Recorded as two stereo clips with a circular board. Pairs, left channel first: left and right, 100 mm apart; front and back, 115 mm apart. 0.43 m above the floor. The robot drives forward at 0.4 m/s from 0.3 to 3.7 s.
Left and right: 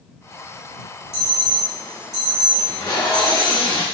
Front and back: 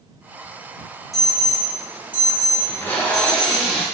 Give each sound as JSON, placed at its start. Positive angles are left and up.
{"t": 1.1, "sound": "an alarm", "azimuth_deg": 90, "distance_m": 1.6}
{"t": 2.6, "sound": "tape being pulled", "azimuth_deg": 55, "distance_m": 0.8}